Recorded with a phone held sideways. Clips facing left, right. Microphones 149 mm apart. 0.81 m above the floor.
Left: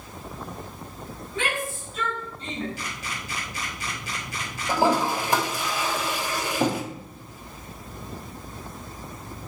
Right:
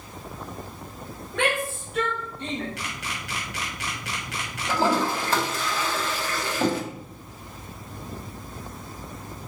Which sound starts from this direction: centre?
A toilet flushing, at 4.7 s.